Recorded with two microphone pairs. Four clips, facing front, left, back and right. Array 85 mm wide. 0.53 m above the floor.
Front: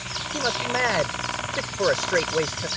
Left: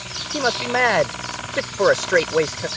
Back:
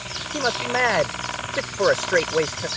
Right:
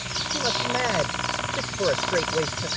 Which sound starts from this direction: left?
A man speaking, at 0.3 s.